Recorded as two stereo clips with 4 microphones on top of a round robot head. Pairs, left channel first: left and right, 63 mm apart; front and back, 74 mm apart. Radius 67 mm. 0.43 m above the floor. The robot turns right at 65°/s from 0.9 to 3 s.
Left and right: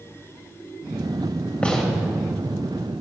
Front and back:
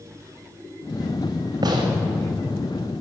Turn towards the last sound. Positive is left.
turn(degrees=-115)